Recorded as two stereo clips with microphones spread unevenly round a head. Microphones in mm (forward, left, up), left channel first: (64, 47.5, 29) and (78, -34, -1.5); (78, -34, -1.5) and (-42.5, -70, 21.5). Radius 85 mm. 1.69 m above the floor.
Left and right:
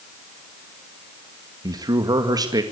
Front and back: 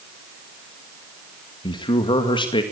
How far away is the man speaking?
About 2 m.